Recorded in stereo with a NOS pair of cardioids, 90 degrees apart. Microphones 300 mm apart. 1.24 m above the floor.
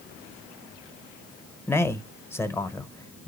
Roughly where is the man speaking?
Ahead.